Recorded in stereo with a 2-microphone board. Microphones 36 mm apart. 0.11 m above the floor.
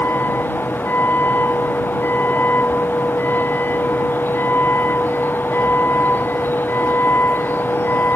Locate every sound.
0.0 s a vehicle: 70° left (ahead or behind)